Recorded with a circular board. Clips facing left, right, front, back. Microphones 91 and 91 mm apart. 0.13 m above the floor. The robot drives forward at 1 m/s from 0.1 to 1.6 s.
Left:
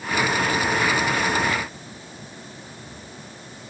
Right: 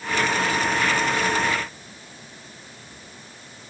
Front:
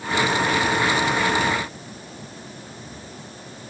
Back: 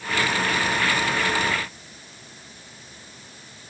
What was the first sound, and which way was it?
Only background noise.